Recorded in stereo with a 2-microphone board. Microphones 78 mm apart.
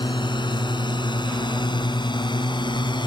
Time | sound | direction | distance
0.0 | a drone | 85° left | ?